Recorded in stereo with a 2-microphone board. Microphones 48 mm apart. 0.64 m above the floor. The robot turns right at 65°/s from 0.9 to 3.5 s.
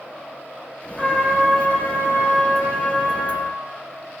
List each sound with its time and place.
1.0 s a trumpet: 20° left, 0.7 m; by 3.5 s straight behind, 0.7 m